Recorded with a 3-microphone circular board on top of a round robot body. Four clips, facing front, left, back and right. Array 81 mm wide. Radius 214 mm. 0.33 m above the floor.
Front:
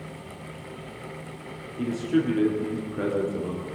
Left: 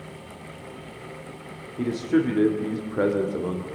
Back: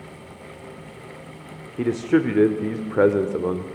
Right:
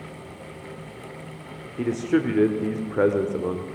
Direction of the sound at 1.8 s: 170° right.